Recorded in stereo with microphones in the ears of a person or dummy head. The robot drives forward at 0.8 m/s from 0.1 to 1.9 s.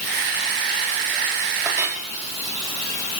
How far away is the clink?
About 3 m.